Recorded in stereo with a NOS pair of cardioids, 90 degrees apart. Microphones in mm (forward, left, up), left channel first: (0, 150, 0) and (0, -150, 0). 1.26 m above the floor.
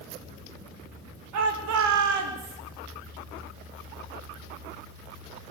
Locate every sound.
1.3 s a shout: 70° right, 5.5 m; by 2.6 s 75° right, 4.5 m